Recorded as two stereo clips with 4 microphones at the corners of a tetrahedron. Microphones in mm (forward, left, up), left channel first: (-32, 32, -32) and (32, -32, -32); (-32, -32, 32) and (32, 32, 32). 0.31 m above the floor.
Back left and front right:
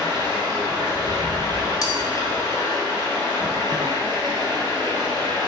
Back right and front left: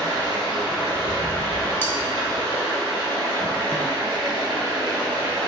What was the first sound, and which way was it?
Running water, 85° left.